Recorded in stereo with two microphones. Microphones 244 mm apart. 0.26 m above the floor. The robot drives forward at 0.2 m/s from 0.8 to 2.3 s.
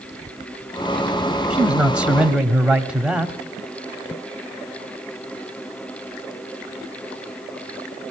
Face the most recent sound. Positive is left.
turn(degrees=-5)  # may be behind; listen again after turning